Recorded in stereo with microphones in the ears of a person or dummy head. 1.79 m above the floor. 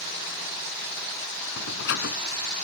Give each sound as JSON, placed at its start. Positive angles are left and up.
{"t": 1.6, "sound": "a door slam", "side_deg": 70}